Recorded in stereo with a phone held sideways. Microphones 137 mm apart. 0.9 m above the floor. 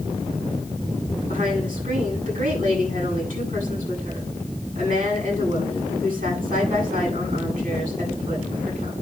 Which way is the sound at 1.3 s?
80° right.